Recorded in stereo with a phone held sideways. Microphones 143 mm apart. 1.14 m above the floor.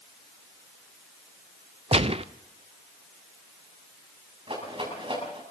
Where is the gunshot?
45° right (ahead or behind), 0.6 m.